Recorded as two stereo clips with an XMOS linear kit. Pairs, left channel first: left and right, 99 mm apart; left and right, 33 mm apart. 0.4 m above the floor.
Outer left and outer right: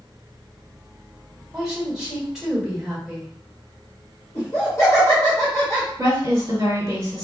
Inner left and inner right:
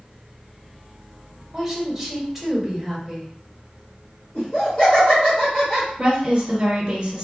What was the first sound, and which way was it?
A woman speaking, 5° right (ahead or behind).